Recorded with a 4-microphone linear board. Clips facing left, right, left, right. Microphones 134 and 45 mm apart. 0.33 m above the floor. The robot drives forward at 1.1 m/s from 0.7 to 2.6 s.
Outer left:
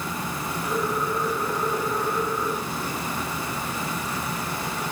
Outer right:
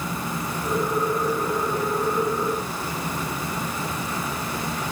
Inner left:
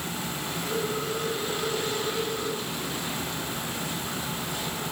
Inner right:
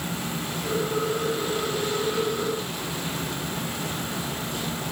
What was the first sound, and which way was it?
Only background noise.